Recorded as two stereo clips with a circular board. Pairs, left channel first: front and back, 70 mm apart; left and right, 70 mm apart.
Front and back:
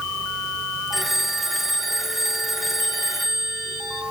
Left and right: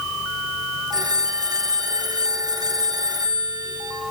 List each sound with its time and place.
0.9 s a phone ringing: 90° right, 2.5 m